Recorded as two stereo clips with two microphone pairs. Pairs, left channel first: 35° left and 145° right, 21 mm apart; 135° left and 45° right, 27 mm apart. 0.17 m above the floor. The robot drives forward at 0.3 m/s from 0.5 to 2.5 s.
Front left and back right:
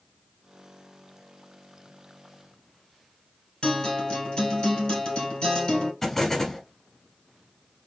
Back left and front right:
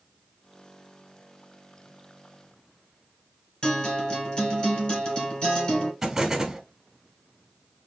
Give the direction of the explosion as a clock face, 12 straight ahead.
12 o'clock.